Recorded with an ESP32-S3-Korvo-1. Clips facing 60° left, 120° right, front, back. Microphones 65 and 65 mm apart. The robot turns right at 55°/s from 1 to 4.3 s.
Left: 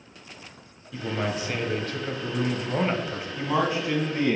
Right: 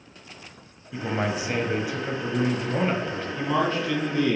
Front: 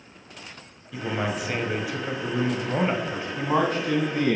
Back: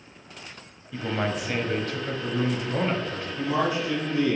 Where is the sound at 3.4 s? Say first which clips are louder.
Even, front 2 dB; 30° right, 1.5 m; by 4.4 s 20° left, 1.5 m.